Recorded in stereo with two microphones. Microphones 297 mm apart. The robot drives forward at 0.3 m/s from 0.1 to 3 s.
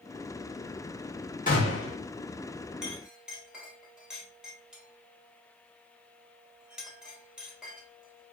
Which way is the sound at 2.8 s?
5° right (ahead or behind).